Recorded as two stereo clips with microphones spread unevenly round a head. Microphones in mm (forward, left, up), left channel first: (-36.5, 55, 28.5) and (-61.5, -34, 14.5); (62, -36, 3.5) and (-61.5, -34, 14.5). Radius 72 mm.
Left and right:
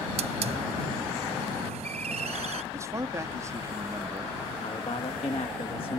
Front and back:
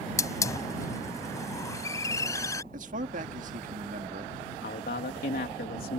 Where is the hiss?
65° right.